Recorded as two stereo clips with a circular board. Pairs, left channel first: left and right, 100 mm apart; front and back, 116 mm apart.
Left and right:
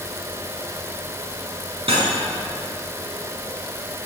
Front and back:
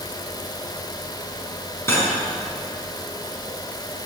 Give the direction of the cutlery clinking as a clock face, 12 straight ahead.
2 o'clock.